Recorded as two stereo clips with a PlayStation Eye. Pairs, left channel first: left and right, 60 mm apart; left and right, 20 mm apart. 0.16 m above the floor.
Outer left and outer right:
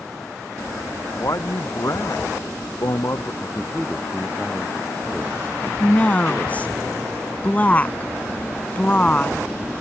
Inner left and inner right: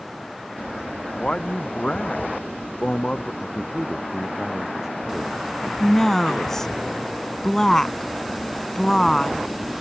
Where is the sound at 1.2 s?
65° left (ahead or behind); by 3.3 s 60° left (ahead or behind).